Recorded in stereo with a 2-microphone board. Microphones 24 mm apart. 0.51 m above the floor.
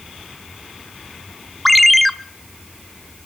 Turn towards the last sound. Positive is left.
turn(degrees=5)  # may be behind; listen again after turning